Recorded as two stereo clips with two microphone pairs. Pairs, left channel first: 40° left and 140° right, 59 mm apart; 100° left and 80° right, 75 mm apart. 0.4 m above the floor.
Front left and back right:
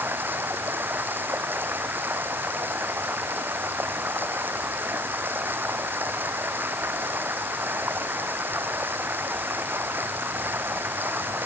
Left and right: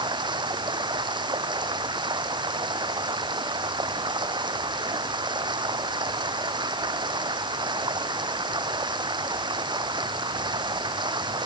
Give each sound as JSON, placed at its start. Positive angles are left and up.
{"t": 0.0, "sound": "running water", "azimuth_deg": -80}